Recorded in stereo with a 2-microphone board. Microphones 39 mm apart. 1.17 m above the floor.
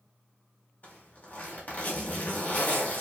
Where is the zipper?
40° left (ahead or behind), 0.8 m.